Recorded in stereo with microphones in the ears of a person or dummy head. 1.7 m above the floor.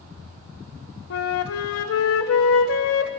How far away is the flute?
About 0.6 m.